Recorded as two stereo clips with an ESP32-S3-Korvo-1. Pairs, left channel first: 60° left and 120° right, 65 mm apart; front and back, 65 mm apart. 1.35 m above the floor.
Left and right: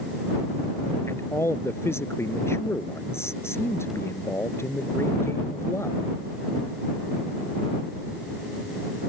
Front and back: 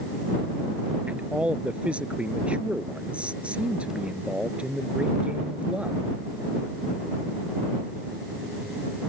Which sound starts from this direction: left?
A man speaking, at 1.1 s.